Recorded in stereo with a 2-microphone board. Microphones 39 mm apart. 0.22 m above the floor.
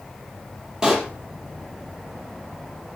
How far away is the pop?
About 4.5 m.